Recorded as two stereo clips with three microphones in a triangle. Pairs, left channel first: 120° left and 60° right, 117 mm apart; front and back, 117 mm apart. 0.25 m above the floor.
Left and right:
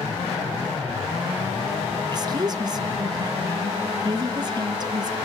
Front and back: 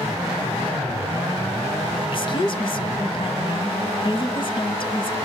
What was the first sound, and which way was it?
A woman speaking, 20° right.